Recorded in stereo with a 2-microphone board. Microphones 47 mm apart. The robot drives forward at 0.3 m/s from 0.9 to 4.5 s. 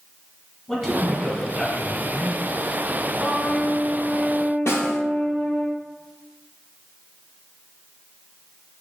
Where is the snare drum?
75° left (ahead or behind), 1.1 m.